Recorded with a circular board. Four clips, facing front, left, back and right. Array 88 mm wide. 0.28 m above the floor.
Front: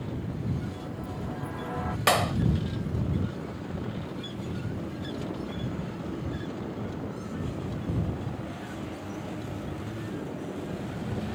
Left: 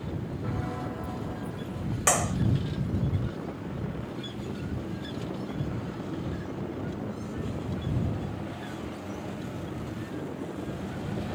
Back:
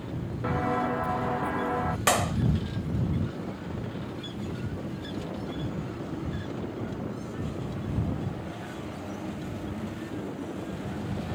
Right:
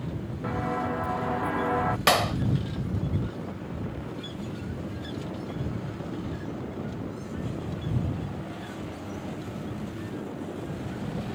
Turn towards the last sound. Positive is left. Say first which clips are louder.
# right 3 dB, front 2 dB
turn(degrees=-75)